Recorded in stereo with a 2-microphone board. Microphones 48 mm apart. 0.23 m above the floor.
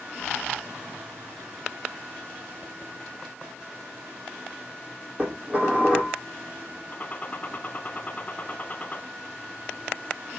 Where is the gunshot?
25° left (ahead or behind), 1.1 m.